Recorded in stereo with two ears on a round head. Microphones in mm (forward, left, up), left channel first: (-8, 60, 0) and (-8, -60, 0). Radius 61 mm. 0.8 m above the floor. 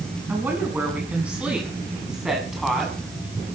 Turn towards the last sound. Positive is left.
turn(degrees=0)  # may be behind; listen again after turning